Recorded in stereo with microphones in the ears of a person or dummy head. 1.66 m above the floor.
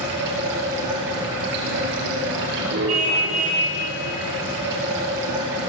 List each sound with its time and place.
0.0 s running water: 60° right (ahead or behind), 8.5 m
2.9 s a car horn: 40° right (ahead or behind), 5.5 m